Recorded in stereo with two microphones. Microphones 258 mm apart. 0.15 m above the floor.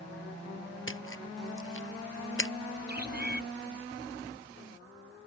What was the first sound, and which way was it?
A splash, 55° left (ahead or behind).